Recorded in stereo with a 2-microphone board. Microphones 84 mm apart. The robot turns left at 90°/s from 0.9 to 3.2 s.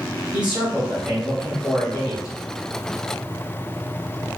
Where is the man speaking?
155° right, 1.3 m; by 2.3 s 75° left, 1.3 m.